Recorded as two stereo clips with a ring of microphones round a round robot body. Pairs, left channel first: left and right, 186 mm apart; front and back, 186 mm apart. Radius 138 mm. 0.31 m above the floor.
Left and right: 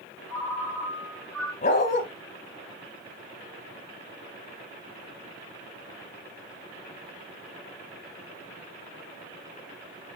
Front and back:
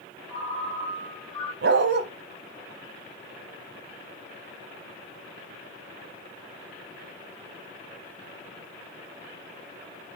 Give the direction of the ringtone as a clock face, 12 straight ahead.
2 o'clock.